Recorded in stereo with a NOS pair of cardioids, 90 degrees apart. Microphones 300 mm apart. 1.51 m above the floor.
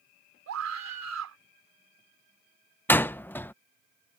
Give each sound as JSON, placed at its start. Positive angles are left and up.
{"t": 0.5, "sound": "a scream", "azimuth_deg": -55}
{"t": 2.9, "sound": "a door slam", "azimuth_deg": 5}